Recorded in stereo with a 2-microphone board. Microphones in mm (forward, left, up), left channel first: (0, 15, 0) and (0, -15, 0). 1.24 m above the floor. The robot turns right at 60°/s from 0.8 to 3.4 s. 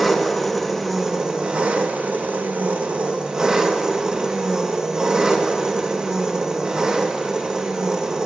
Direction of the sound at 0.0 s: Straight behind.